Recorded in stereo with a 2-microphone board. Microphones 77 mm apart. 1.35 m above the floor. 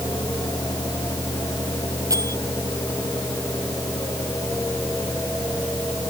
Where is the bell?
50° right (ahead or behind).